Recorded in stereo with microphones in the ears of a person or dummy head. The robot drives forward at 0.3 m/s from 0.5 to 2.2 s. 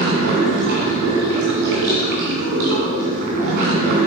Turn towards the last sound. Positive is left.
turn(degrees=-50)  # may be behind; listen again after turning